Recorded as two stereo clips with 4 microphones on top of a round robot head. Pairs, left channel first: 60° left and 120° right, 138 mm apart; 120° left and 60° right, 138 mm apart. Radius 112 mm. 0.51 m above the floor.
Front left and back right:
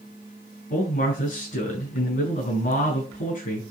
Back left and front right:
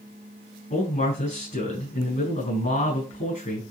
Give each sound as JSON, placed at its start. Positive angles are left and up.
{"t": 0.7, "sound": "a man speaking", "azimuth_deg": 90, "distance_m": 6.5}